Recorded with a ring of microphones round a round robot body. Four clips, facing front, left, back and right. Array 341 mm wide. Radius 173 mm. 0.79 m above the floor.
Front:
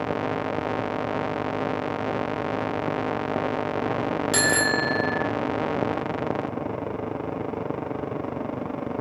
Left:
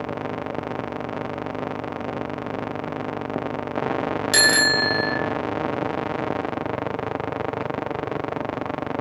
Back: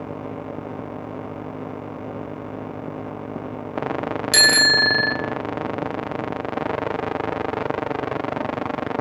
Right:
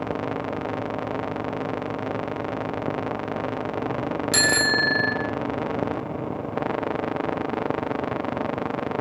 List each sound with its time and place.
4.3 s a bicycle bell: 145° left, 2.5 m